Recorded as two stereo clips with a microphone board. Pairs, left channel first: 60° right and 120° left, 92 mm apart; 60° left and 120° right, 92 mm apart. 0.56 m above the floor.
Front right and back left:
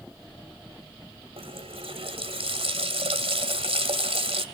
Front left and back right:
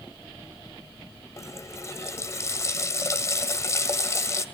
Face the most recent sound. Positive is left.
turn(degrees=115)